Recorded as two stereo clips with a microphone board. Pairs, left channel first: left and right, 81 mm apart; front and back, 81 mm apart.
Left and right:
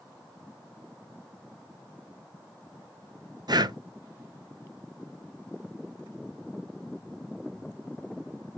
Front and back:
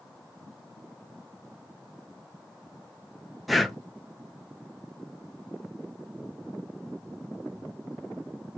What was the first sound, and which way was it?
Breathing, 90° right.